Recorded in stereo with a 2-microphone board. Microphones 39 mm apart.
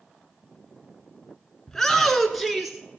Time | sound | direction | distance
1.7 | a shout | 15° left (ahead or behind) | 1.2 m